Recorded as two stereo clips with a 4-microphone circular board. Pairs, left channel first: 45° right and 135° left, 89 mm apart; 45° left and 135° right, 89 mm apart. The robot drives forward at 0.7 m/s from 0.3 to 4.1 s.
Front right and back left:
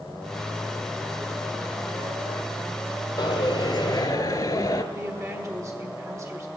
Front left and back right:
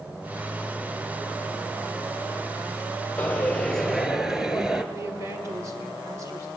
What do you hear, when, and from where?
3.2 s a dropped coin: 25° right, 1.1 m; by 4.8 s 55° right, 0.7 m
4.9 s a woman speaking: straight behind, 1.4 m